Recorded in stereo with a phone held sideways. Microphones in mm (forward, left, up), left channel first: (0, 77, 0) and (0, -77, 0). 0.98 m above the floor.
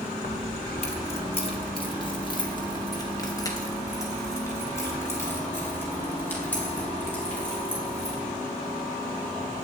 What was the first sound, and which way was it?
Keys jangling, 60° left (ahead or behind).